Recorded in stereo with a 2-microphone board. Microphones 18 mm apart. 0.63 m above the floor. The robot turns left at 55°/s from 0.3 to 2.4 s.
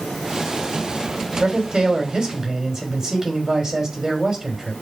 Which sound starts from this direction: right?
A man speaking, at 1.4 s.